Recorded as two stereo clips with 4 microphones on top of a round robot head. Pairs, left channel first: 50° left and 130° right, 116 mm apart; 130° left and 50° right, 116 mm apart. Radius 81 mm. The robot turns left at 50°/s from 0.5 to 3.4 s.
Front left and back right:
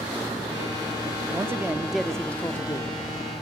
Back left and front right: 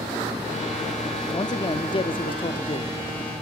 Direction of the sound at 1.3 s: 175° left.